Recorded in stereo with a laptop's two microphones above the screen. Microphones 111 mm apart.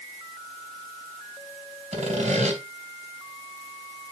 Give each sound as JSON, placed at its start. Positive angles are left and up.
{"t": 1.9, "sound": "sawing", "side_deg": -80, "distance_m": 3.0}